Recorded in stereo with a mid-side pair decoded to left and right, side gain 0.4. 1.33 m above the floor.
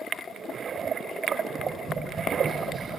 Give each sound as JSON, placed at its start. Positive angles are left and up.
{"t": 1.5, "sound": "tapping", "azimuth_deg": -40, "distance_m": 6.5}